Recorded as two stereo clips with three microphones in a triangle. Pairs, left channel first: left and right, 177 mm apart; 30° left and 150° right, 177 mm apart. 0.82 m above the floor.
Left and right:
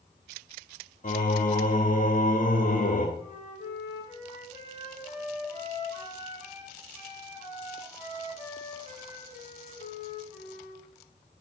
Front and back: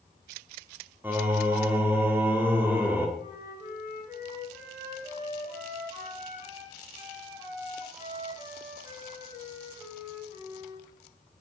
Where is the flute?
140° left, 5 m.